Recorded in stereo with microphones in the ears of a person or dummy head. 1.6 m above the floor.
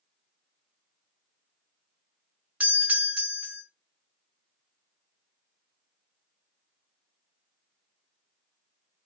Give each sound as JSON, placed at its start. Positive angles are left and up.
{"t": 2.6, "sound": "a doorbell", "side_deg": -5, "distance_m": 0.6}